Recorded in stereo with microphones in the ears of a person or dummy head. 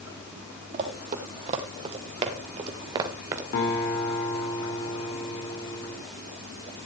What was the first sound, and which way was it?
Running footsteps, 45° right (ahead or behind).